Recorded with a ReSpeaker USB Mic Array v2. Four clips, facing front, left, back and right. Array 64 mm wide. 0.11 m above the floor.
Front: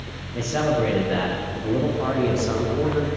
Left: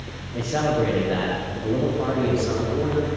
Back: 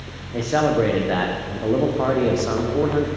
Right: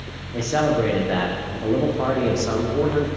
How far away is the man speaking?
About 7.5 m.